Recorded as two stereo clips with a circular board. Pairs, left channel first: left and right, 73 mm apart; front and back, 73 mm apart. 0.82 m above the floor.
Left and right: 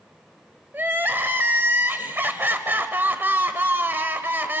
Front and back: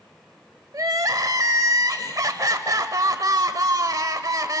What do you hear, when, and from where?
0.7 s crying: 150° right, 1.1 m